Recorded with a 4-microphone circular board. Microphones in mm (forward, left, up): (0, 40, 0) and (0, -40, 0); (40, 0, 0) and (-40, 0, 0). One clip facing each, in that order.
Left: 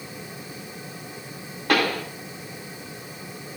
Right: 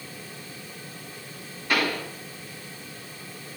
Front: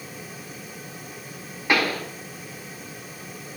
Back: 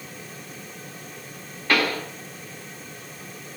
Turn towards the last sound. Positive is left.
turn(degrees=75)